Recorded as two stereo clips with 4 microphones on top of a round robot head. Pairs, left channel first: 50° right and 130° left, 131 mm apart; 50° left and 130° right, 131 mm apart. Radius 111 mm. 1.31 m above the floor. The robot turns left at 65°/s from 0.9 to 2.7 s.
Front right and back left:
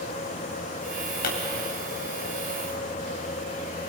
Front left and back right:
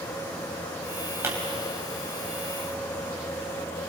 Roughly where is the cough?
No cough in this recording.